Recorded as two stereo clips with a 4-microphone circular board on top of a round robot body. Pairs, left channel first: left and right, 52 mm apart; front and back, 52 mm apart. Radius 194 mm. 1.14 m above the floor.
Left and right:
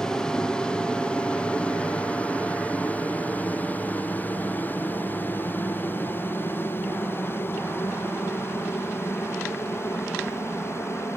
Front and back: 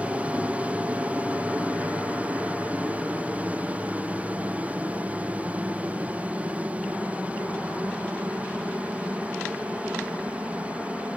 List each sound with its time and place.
0.0 s an aircraft: 155° left; by 11.2 s 120° left